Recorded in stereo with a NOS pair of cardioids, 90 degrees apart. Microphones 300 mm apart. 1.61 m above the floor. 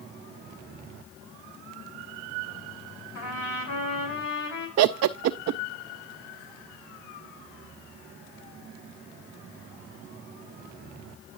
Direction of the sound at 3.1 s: 60° left.